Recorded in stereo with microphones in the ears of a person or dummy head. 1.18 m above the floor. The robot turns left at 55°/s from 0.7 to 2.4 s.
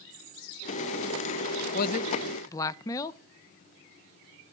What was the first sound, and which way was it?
A man speaking, 55° left.